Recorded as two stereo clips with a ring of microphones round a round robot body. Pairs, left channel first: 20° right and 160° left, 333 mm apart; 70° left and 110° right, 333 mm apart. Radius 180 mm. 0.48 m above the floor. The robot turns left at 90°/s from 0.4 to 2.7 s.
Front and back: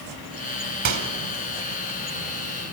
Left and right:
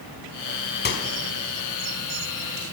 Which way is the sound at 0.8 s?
125° left.